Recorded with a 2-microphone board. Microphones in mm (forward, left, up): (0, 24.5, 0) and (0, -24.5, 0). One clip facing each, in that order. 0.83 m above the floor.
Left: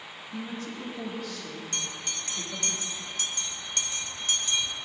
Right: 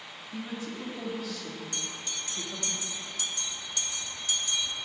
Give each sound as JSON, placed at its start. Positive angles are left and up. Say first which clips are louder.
{"t": 0.3, "sound": "a woman speaking", "louder": "left 1 dB", "side_deg": -5, "distance_m": 1.8}
{"t": 1.7, "sound": "a bell", "louder": "left 2 dB", "side_deg": 55, "distance_m": 1.0}